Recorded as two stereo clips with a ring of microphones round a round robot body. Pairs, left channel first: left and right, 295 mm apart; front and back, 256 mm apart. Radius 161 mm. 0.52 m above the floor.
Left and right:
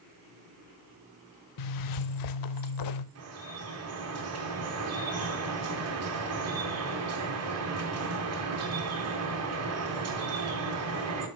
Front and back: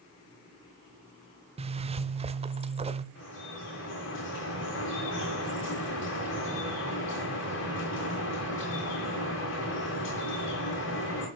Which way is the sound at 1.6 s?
110° left.